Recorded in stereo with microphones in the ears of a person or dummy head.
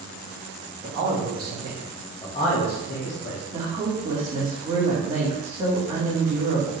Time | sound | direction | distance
0.8 | a man speaking | 60° right (ahead or behind) | 1.8 m
3.5 | a woman speaking | 30° right (ahead or behind) | 1.6 m